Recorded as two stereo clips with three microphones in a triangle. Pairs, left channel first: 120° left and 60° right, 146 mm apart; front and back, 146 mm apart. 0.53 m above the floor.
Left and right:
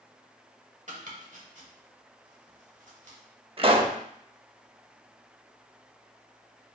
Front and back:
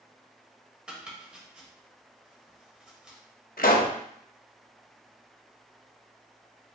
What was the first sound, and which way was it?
Chopping, 95° right.